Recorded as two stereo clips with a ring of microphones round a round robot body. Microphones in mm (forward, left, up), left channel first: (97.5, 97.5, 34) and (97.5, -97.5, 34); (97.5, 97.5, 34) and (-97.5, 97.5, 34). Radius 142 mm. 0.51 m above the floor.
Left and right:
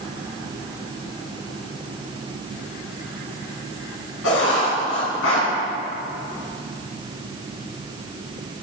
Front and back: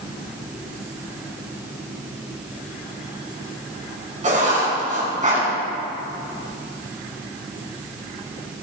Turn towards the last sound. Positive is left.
turn(degrees=130)